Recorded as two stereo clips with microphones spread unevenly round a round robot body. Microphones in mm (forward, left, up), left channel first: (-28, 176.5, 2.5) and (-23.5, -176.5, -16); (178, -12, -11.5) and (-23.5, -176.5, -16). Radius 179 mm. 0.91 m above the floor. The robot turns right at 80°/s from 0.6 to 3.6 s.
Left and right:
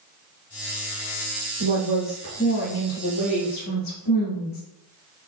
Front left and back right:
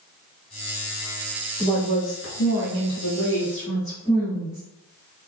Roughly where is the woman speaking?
Ahead right.